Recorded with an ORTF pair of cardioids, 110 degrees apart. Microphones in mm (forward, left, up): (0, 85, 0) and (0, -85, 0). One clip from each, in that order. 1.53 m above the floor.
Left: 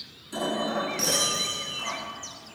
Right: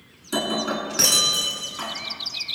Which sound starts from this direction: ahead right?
Breaking glass, at 0.3 s.